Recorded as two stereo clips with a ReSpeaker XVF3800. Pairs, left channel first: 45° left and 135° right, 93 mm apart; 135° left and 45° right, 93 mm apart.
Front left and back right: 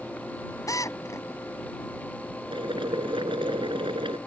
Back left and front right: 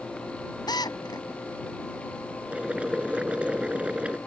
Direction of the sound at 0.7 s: 95° left.